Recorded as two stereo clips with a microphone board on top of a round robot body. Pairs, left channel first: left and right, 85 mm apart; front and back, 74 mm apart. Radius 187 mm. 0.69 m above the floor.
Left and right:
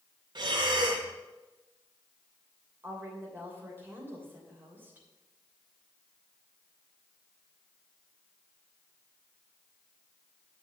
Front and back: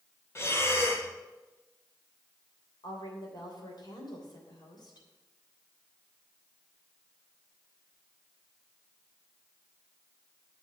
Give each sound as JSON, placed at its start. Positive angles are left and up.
{"t": 0.3, "sound": "breathing", "azimuth_deg": -55, "distance_m": 1.2}
{"t": 2.8, "sound": "a woman speaking", "azimuth_deg": -25, "distance_m": 3.0}